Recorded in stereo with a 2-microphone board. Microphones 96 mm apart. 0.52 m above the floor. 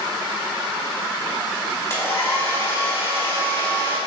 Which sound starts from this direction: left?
A hair dryer, at 1.9 s.